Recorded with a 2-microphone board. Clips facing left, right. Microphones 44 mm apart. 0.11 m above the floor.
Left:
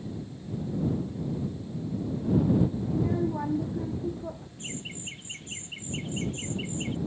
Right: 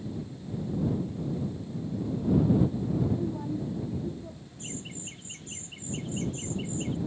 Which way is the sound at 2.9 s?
60° left (ahead or behind).